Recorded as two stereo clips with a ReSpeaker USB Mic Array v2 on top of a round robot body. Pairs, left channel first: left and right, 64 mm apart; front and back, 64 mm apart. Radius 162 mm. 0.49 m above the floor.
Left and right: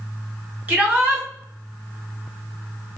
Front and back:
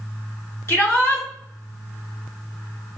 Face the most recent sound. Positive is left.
turn(degrees=-35)